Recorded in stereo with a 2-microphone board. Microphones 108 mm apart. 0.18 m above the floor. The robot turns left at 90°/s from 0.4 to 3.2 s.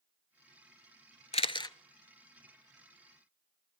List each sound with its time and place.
1.3 s a camera shutter: 65° left (ahead or behind), 0.5 m; by 1.8 s 30° left (ahead or behind), 0.5 m